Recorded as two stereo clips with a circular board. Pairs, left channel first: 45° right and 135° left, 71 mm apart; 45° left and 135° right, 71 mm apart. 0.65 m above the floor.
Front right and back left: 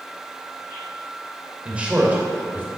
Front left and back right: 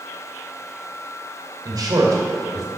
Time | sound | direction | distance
1.6 | a man speaking | 150° right | 2.5 m